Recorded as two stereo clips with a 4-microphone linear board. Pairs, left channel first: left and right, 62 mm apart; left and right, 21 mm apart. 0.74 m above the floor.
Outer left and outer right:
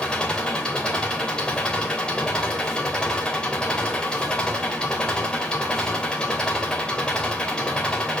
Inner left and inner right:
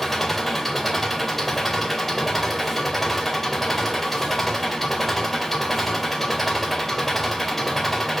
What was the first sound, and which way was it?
An engine running, 15° left (ahead or behind).